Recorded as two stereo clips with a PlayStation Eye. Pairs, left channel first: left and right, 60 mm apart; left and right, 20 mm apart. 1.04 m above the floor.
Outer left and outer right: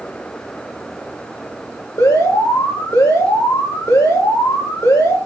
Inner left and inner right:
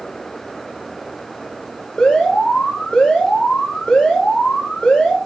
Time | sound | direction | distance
2.0 | an alarm | 75° left (ahead or behind) | 4.5 m